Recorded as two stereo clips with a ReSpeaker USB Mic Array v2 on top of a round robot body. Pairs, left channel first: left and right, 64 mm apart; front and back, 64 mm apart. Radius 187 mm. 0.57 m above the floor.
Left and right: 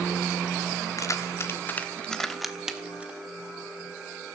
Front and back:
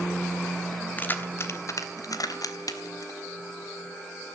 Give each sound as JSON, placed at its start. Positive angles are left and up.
{"t": 1.0, "sound": "keys jangling", "azimuth_deg": 60, "distance_m": 1.4}